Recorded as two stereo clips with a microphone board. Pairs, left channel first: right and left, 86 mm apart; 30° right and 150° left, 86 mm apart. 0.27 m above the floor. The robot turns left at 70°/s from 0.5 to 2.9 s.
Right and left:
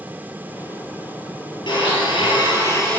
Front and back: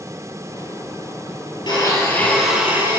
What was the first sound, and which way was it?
A blender, 65° right.